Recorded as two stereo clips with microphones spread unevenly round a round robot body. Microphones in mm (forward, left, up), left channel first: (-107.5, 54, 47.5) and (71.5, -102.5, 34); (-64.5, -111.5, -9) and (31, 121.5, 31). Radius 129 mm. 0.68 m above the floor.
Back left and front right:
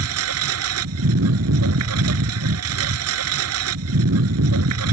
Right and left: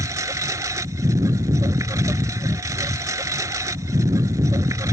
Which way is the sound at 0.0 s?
10° right.